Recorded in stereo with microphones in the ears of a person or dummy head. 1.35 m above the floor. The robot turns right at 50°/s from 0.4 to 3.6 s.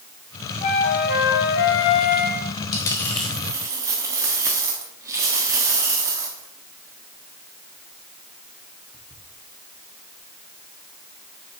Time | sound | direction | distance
0.6 | a flute | 40° left | 1.1 m
2.7 | a dropped coin | 25° left (ahead or behind) | 1.3 m